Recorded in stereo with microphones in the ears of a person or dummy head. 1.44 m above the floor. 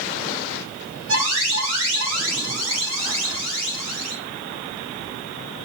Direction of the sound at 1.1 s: 85° right.